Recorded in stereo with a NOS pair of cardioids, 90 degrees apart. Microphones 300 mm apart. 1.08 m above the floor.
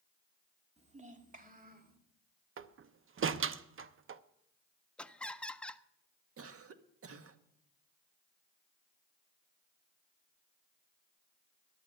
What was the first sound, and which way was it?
A child speaking, 20° right.